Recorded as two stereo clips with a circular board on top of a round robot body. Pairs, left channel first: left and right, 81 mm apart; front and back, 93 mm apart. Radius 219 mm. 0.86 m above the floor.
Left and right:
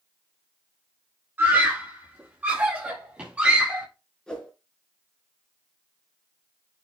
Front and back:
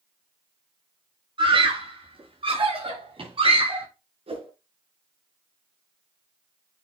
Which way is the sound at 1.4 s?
155° right.